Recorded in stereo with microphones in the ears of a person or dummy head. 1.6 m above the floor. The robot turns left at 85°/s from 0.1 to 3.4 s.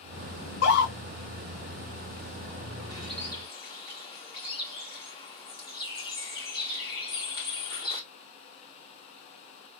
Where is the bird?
165° right, 1.3 m; by 8.0 s 150° left, 1.3 m.